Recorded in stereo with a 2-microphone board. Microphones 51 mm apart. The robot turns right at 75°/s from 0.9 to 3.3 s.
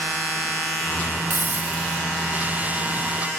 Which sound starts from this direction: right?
A hiss, at 1.3 s.